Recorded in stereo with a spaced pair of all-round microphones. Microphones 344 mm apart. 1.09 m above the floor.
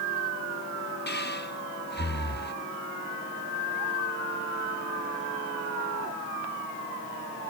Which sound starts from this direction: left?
Breathing, at 1.1 s.